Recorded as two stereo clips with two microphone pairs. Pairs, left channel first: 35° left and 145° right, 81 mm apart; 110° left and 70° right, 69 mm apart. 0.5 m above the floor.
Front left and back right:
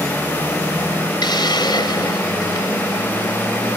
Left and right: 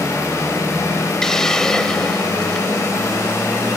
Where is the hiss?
30° left.